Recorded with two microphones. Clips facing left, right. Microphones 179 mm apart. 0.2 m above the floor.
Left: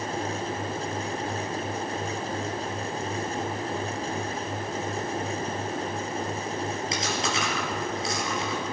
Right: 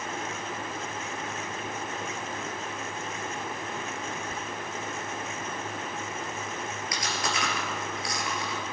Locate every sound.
4.3 s whispering: 30° right (ahead or behind), 1.1 m
6.9 s chewing: 25° left (ahead or behind), 4 m